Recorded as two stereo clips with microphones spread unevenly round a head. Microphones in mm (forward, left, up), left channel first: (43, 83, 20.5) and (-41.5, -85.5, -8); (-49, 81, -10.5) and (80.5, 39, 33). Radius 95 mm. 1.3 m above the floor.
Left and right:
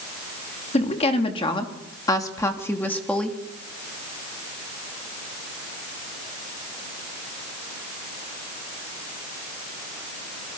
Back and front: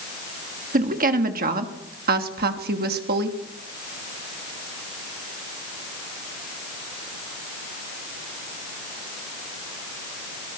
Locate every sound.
0.7 s a woman speaking: 5° left, 3 m; by 3.4 s 25° right, 3 m